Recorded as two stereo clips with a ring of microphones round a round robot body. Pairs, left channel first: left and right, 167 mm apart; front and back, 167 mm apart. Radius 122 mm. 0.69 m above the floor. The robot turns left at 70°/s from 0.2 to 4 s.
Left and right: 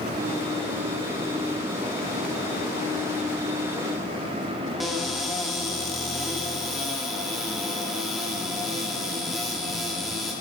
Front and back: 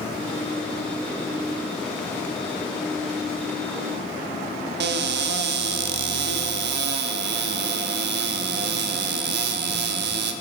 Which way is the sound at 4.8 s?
Straight behind.